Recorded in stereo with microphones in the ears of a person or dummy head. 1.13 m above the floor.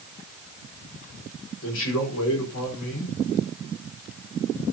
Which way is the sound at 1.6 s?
65° left (ahead or behind).